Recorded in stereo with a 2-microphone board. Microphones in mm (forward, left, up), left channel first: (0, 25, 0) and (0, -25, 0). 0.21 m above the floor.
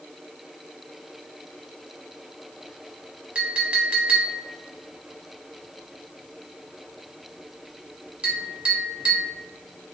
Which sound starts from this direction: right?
A clink, at 3.4 s.